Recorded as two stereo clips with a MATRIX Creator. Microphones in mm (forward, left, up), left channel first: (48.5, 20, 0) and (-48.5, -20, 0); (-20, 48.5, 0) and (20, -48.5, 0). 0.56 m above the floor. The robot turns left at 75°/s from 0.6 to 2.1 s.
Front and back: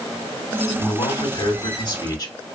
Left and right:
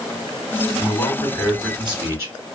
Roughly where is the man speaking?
Left.